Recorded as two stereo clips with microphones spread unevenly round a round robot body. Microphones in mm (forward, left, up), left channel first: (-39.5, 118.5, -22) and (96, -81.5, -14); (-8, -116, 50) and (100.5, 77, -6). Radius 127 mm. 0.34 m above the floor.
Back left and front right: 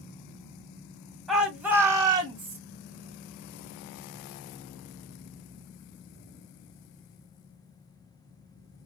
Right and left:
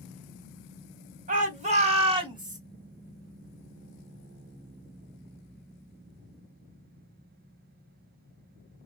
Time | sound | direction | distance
1.3 | a shout | 35° left | 2.5 m